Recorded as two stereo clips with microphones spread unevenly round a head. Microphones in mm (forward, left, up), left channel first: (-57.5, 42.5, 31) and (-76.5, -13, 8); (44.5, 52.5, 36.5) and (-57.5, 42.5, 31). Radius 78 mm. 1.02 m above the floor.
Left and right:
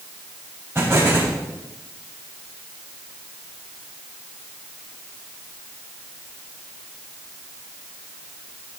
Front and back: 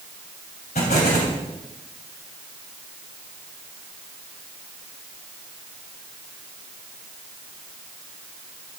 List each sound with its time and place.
0.8 s an explosion: 30° right, 3.5 m